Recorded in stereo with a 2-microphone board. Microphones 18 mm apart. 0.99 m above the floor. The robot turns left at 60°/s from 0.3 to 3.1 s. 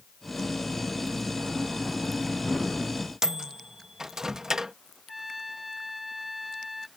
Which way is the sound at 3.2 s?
40° right (ahead or behind).